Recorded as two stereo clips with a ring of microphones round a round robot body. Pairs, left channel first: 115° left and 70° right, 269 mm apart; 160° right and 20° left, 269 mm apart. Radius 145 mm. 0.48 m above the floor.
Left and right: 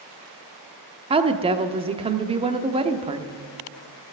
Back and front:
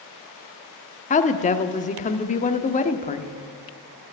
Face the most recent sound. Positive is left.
turn(degrees=-120)